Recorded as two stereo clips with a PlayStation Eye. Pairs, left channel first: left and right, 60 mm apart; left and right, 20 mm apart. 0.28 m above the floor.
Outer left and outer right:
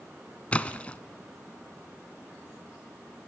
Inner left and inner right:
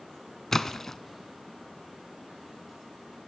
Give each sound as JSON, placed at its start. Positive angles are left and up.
{"t": 0.5, "sound": "a splash", "side_deg": 20, "distance_m": 0.9}